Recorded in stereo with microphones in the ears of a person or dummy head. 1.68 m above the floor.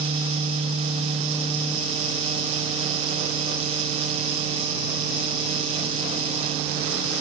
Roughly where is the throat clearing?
I don't hear throat clearing.